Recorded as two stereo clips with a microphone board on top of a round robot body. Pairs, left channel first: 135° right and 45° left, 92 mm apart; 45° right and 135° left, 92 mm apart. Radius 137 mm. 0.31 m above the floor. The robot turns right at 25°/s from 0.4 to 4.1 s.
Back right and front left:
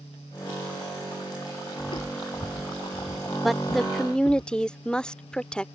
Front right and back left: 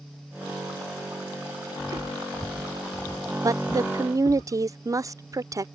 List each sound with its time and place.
1.8 s footsteps: 175° right; by 4.4 s 90° right
3.4 s a woman speaking: 135° left; by 5.7 s 150° left